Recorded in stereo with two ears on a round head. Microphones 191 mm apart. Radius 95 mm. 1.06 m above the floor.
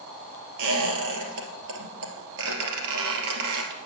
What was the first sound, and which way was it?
A squeak, 65° right (ahead or behind).